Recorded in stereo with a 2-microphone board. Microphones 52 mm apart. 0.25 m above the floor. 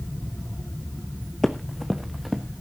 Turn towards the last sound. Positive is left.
turn(degrees=-5)  # may be behind; listen again after turning